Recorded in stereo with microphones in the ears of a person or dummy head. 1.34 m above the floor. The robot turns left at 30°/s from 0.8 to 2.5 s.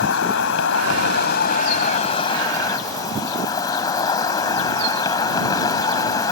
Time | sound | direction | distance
0.0 | an insect | 70° left | ?